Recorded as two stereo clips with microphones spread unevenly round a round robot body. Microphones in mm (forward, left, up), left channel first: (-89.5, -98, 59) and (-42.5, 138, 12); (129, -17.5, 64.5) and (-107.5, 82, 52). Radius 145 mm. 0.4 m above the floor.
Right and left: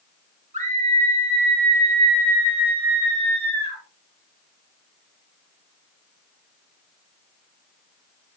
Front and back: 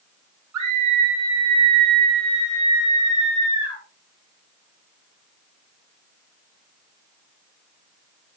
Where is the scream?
140° left, 7 m; by 3.8 s 130° left, 8.5 m.